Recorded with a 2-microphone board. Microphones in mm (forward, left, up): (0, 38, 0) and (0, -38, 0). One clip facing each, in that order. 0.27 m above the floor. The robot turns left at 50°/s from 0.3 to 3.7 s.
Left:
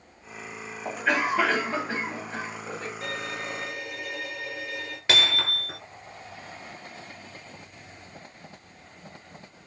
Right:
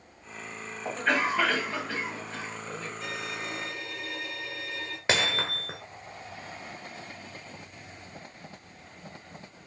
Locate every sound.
0.8 s a cough: straight behind, 1.9 m; by 2.9 s 80° left, 1.9 m
3.0 s a violin: 60° left, 2 m; by 5.0 s 25° left, 2 m
5.1 s hammering: 25° right (ahead or behind), 1.3 m